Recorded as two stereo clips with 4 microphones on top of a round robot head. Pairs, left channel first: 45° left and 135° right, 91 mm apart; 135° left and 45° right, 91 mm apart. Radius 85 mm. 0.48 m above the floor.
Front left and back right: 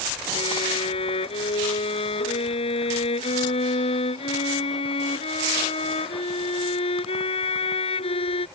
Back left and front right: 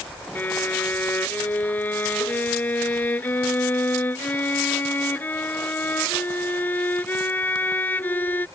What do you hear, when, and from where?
0.3 s a violin: 65° left